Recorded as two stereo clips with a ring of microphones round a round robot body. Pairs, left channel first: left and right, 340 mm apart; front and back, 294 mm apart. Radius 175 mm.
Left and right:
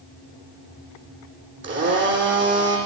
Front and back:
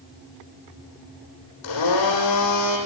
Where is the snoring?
No snoring in this recording.